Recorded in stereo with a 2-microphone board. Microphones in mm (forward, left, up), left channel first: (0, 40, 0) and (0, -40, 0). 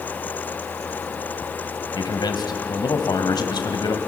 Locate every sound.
1.9 s a man speaking: 65° left (ahead or behind), 2 m